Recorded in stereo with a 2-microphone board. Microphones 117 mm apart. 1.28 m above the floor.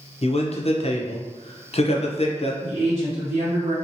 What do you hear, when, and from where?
0.2 s a man speaking: 60° left (ahead or behind), 0.5 m
2.6 s a woman speaking: 75° right (ahead or behind), 1.0 m